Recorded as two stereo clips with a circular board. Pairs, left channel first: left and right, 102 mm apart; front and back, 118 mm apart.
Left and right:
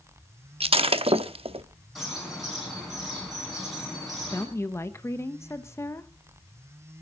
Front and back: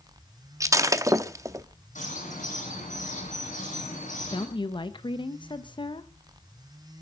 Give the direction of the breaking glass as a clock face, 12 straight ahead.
4 o'clock.